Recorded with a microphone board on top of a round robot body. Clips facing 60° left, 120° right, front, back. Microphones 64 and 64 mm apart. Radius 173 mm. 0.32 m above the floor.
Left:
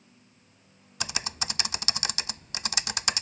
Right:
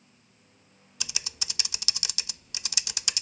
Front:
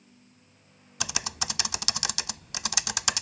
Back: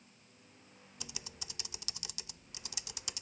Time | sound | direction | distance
1.0 | typing on a keyboard | 10° left | ?